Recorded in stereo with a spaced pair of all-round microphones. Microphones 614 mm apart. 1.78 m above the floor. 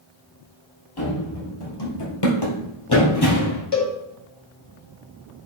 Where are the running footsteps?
40° left (ahead or behind), 2 m; by 3.6 s 35° left (ahead or behind), 3 m.